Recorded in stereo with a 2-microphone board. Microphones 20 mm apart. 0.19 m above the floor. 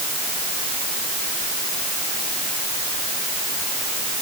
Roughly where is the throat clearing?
I don't hear throat clearing.